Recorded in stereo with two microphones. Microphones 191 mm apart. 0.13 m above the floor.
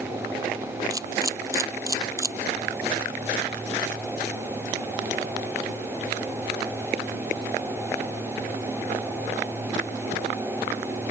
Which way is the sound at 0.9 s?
15° right (ahead or behind).